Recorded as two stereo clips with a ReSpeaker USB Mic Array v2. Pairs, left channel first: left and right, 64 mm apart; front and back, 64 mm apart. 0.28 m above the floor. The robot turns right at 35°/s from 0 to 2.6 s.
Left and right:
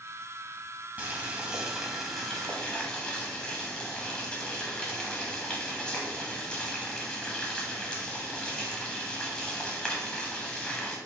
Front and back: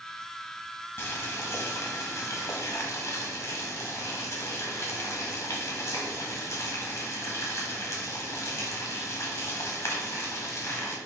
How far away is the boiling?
About 1.0 m.